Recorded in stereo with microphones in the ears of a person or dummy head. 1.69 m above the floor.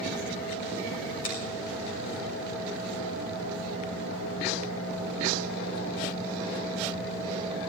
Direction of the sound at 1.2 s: 45° left (ahead or behind).